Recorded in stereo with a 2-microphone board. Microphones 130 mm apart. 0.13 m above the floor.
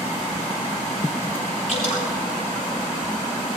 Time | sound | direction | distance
1.7 | dripping | 65° left (ahead or behind) | 6 m